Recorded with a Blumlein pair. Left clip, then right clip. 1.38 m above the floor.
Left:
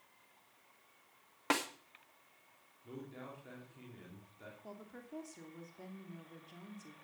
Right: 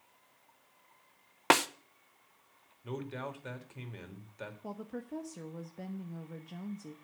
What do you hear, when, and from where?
1.5 s a snare drum: 65° right, 0.8 m
2.8 s a man speaking: 45° right, 2.5 m
4.6 s a woman speaking: 45° right, 1.2 m